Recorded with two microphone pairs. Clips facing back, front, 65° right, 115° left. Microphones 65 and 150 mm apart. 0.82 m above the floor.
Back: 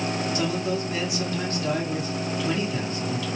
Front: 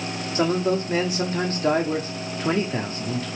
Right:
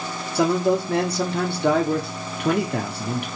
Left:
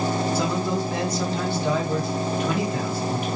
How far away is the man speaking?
About 1.8 m.